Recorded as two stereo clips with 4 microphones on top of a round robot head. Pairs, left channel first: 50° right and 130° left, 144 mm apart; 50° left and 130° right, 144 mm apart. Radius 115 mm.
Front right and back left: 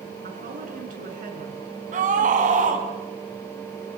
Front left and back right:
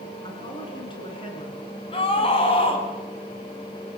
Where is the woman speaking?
105° left, 6.5 m.